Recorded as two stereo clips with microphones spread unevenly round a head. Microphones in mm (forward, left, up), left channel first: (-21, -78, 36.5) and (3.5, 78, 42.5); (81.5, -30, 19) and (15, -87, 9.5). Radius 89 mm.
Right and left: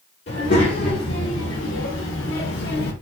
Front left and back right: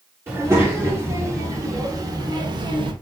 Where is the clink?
I don't hear a clink.